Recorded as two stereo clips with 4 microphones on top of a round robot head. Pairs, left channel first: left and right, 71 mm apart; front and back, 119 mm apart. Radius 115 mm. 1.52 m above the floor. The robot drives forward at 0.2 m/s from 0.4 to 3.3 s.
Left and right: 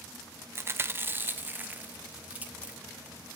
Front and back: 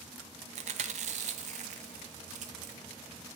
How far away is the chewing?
About 0.6 m.